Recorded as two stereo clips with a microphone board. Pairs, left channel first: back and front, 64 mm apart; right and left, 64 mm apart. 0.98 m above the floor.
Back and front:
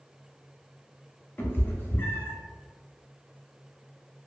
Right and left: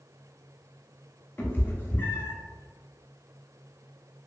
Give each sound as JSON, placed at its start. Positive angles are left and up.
{"t": 1.4, "sound": "a cat meowing", "azimuth_deg": -135, "distance_m": 0.6}